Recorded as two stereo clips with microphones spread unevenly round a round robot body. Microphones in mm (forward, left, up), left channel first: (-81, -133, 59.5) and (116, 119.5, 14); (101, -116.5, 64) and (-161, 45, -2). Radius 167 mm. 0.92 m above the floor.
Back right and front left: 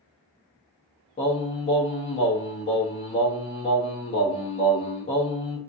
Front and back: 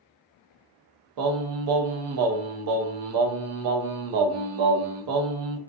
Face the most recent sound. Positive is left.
turn(degrees=155)